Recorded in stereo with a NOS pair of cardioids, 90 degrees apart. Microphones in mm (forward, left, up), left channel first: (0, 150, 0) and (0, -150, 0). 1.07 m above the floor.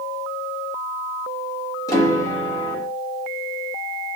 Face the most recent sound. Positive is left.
turn(degrees=10)